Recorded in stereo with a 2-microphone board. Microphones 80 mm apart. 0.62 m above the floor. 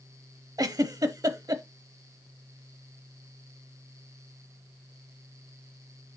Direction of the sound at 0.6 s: 50° right (ahead or behind).